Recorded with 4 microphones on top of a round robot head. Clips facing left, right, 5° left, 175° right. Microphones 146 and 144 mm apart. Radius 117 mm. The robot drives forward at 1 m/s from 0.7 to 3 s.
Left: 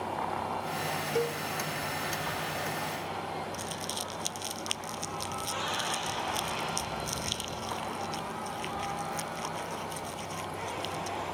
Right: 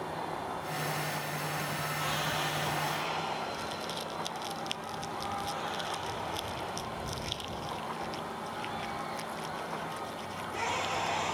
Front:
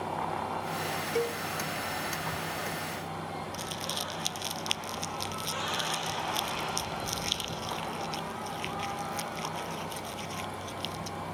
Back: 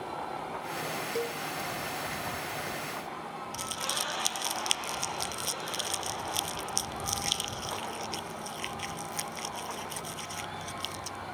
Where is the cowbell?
75° left; by 1.4 s 80° left.